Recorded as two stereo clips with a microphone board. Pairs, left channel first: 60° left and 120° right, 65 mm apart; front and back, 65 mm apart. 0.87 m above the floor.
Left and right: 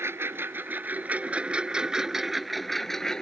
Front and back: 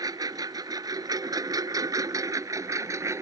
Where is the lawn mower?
170° right; by 3.2 s 145° left.